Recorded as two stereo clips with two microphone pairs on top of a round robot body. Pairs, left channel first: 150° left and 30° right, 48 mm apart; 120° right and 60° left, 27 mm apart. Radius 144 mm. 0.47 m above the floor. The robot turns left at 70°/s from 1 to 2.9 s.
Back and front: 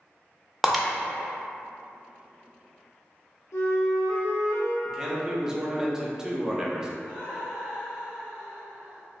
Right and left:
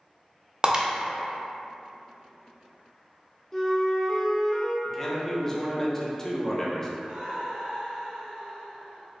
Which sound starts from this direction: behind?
A flute, at 3.5 s.